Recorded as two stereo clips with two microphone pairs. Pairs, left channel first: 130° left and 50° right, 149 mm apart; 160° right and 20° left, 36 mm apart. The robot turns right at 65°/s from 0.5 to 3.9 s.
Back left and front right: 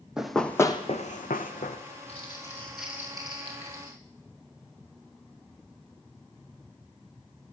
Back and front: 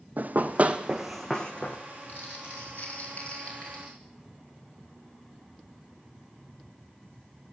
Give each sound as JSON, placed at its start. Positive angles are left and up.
{"t": 0.2, "sound": "running footsteps", "azimuth_deg": 35, "distance_m": 0.8}
{"t": 2.1, "sound": "crumpling", "azimuth_deg": 175, "distance_m": 5.0}